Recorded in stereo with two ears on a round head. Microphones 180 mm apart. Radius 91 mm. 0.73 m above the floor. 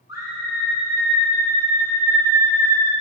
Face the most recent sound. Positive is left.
turn(degrees=50)  # may be behind; listen again after turning